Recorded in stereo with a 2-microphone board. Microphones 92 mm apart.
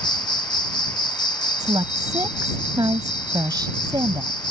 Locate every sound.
0.0 s an insect: 50° left (ahead or behind)
1.6 s a woman speaking: 45° right (ahead or behind)